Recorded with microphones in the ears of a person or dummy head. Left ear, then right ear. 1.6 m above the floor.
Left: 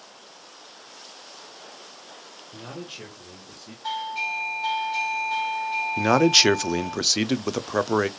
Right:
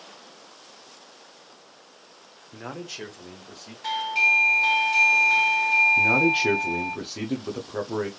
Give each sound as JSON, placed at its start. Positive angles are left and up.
{"t": 2.5, "sound": "a man speaking", "side_deg": -55, "distance_m": 0.8}
{"t": 3.8, "sound": "a doorbell", "side_deg": -55, "distance_m": 1.3}
{"t": 6.0, "sound": "a man speaking", "side_deg": 80, "distance_m": 0.5}